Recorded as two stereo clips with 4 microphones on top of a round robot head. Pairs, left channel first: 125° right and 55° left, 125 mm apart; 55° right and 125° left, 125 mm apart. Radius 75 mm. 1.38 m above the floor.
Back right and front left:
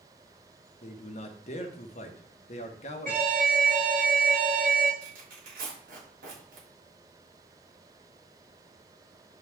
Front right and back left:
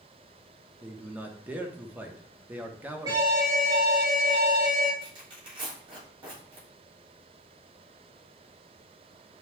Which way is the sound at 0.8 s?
160° right.